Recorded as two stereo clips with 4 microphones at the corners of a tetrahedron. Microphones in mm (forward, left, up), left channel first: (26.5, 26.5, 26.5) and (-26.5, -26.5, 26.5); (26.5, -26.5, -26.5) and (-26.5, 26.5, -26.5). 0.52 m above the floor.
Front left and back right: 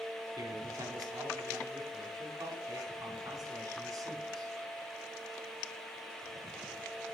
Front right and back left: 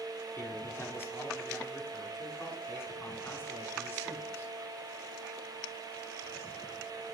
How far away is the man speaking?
About 5 m.